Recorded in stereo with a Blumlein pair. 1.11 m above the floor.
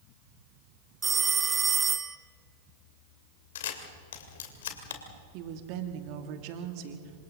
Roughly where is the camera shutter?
Ahead left.